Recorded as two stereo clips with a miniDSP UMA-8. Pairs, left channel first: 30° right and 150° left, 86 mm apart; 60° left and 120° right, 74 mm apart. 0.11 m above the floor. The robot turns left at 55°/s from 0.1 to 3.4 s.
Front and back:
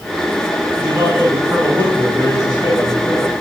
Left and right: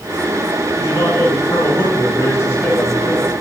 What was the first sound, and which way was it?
A man speaking, 100° left.